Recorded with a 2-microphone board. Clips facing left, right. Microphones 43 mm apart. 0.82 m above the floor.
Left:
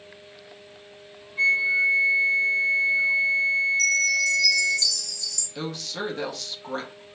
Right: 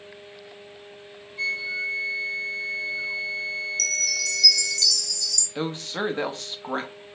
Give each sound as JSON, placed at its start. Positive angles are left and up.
{"t": 1.4, "sound": "a flute", "side_deg": 35, "distance_m": 0.6}
{"t": 3.8, "sound": "a chime", "side_deg": -60, "distance_m": 0.9}
{"t": 5.5, "sound": "a woman speaking", "side_deg": -30, "distance_m": 0.8}